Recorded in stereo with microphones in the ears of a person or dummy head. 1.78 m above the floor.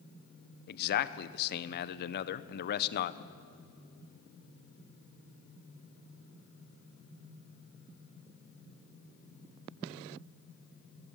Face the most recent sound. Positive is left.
turn(degrees=55)  # may be behind; listen again after turning